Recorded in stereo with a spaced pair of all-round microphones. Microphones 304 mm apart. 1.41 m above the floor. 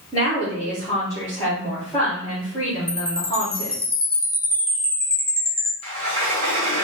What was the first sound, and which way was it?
A woman speaking, 20° left (ahead or behind).